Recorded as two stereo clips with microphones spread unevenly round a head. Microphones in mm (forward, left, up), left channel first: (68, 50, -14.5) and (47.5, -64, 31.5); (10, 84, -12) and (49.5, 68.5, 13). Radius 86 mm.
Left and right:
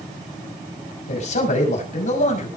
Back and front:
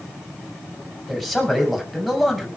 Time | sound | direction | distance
1.1 | a man speaking | 75° left | 5.5 m